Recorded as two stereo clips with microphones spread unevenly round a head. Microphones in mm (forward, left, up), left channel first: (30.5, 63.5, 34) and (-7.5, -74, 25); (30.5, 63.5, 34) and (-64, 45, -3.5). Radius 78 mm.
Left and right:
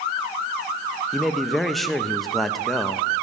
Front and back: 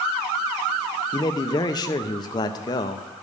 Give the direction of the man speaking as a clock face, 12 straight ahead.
12 o'clock.